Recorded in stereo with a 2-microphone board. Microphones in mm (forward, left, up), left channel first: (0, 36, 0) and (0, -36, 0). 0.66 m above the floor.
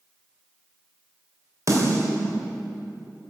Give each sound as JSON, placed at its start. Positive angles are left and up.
{"t": 1.7, "sound": "a snare drum", "side_deg": -50, "distance_m": 3.0}